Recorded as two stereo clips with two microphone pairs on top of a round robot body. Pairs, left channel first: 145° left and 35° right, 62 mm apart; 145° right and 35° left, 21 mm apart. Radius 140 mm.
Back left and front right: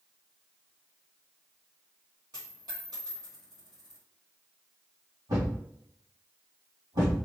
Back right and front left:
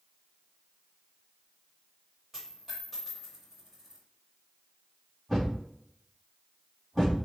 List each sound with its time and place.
2.3 s a dropped coin: 55° right, 1.0 m
5.3 s a thud: 65° right, 2 m